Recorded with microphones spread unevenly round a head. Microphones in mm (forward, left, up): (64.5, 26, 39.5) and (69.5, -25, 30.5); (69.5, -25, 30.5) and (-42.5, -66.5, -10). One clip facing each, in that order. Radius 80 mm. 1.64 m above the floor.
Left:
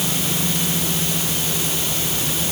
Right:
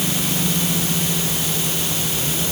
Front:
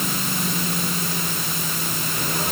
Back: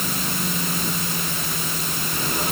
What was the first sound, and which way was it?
Only background noise.